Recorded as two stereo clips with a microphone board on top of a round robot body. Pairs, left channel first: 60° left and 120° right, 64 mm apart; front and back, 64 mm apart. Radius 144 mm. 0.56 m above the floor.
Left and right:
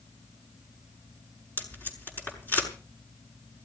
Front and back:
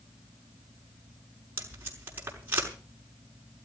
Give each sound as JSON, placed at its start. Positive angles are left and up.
{"t": 1.6, "sound": "tape being pulled", "azimuth_deg": 120, "distance_m": 6.0}